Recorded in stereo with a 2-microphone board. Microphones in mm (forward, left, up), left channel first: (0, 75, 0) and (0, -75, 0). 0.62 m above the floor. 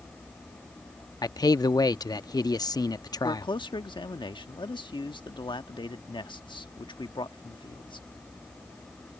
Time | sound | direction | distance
1.2 | a man speaking | 30° left (ahead or behind) | ?
3.2 | a man speaking | 35° left (ahead or behind) | ?